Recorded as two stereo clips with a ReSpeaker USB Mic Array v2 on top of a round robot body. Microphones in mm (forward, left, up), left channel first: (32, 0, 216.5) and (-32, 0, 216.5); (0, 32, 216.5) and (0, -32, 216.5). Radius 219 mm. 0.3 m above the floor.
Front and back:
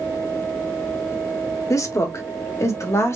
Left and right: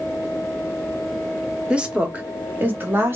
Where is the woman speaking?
15° right, 1.6 m; by 3.2 s 35° right, 2 m.